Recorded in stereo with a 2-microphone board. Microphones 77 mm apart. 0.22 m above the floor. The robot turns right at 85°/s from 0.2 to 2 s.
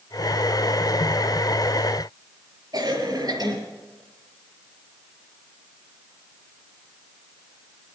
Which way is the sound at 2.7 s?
55° right (ahead or behind).